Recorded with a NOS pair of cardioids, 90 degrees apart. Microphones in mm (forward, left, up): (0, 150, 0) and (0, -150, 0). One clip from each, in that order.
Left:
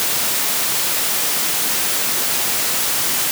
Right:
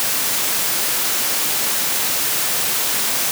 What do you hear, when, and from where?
Only background noise.